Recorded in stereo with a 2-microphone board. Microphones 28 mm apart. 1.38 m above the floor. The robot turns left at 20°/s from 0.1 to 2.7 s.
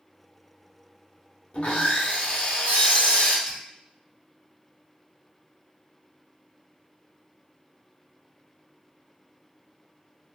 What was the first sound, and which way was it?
Sawing, 40° left (ahead or behind).